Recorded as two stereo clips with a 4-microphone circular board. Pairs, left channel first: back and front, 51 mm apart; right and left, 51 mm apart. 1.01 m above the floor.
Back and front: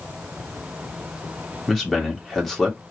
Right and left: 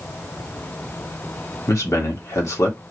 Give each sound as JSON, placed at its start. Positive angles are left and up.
{"t": 1.7, "sound": "a man speaking", "azimuth_deg": -95, "distance_m": 2.0}